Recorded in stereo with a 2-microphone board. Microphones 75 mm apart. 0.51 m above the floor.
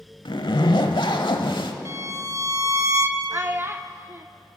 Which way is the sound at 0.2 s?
85° left.